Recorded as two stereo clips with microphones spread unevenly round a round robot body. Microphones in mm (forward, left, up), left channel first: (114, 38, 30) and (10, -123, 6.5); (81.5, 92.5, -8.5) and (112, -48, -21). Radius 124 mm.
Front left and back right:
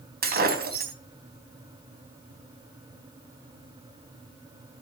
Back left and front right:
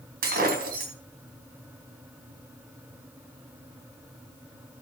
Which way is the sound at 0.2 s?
90° right.